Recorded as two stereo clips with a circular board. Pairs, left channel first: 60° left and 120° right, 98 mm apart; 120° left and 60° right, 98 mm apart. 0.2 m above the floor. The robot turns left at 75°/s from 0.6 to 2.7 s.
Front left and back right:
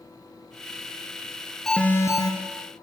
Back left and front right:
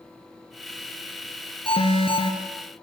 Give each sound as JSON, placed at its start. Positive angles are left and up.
{"t": 1.7, "sound": "an alarm", "azimuth_deg": 145, "distance_m": 3.5}